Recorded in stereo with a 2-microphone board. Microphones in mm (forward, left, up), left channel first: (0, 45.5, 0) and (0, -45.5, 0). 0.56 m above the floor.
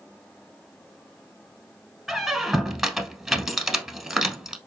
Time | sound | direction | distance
2.1 | a squeak | 5° right (ahead or behind) | 0.7 m